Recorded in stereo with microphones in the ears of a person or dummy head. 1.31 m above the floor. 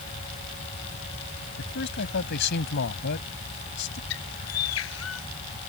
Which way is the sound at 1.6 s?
60° left (ahead or behind).